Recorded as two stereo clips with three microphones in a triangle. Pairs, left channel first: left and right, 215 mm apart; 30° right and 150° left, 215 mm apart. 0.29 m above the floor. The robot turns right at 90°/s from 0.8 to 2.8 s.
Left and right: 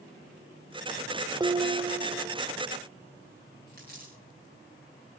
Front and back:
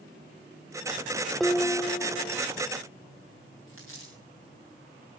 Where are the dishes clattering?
120° right, 0.6 m; by 2.4 s 30° right, 0.6 m.